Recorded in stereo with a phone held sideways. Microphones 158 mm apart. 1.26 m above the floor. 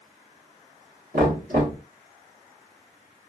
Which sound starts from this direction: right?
Knocking, at 1.1 s.